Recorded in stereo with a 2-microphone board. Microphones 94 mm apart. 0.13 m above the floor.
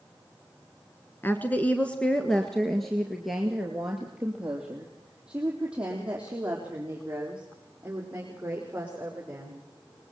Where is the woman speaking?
25° left (ahead or behind), 1.2 m; by 9.6 s 15° right (ahead or behind), 6.5 m.